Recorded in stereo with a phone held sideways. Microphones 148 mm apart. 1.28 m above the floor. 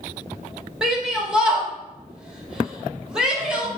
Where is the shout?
5° right (ahead or behind), 1.9 m.